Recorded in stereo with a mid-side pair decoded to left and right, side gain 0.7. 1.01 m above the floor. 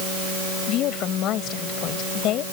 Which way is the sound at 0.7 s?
55° left.